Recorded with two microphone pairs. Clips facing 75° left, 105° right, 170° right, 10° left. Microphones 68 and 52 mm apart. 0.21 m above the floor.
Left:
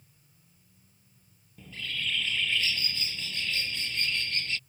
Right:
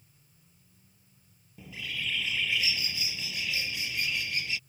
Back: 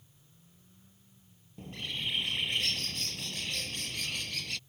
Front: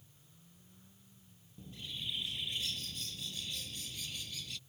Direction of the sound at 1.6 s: 175° left.